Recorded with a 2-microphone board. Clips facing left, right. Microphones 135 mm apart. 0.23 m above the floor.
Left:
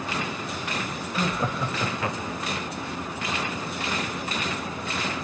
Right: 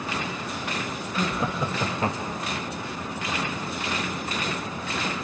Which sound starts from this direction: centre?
Laughter, at 1.1 s.